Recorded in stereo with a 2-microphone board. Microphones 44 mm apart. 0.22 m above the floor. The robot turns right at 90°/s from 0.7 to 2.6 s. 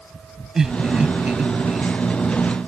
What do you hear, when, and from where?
0.6 s laughter: 15° right (ahead or behind)